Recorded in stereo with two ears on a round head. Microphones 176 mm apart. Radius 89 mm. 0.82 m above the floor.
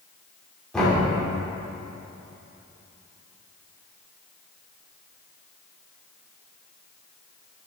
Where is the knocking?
5° left (ahead or behind), 2.5 m.